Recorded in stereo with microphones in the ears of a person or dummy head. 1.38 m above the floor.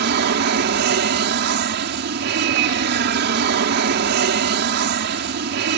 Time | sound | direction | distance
0.0 | an aircraft | 50° right (ahead or behind) | ?